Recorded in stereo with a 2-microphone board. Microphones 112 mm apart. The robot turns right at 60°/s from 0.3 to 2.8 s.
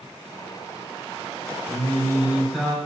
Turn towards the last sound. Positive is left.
turn(degrees=5)